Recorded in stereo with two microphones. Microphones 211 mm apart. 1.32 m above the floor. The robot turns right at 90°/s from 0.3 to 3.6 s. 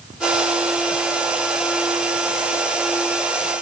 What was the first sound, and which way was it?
Only background noise.